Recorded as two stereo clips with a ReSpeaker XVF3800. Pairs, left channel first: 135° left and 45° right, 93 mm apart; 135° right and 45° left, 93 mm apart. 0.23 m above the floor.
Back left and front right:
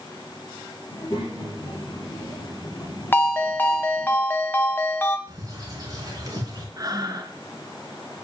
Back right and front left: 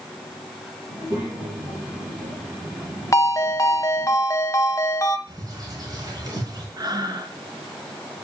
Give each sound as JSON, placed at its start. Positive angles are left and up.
{"t": 0.9, "sound": "a child speaking", "azimuth_deg": 85, "distance_m": 5.5}
{"t": 3.1, "sound": "a ringtone", "azimuth_deg": -170, "distance_m": 1.0}
{"t": 5.3, "sound": "a bird", "azimuth_deg": 5, "distance_m": 3.0}
{"t": 6.8, "sound": "breathing", "azimuth_deg": 5, "distance_m": 1.2}